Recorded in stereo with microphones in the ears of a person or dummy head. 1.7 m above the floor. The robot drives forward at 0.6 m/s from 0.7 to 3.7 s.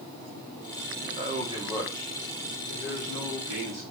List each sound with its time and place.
1.0 s a man speaking: 35° right (ahead or behind), 1.0 m; by 3.8 s 15° right (ahead or behind), 2.5 m